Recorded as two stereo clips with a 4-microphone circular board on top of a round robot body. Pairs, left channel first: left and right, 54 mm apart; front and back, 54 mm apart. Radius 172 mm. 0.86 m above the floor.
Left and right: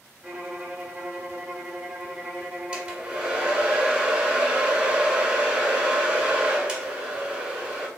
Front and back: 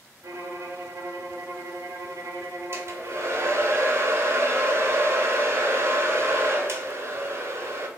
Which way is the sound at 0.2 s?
155° right.